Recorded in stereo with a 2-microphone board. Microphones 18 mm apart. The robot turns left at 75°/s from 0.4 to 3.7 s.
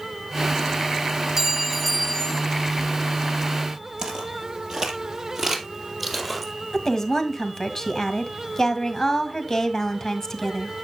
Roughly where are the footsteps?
Right.